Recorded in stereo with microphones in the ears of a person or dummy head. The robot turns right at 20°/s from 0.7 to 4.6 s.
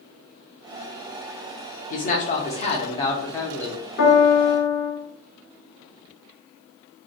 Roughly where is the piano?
Left.